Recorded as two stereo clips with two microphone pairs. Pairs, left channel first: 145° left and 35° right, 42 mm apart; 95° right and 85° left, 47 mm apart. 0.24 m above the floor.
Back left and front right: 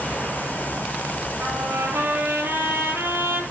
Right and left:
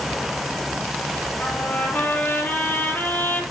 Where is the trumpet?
50° right, 5.5 m.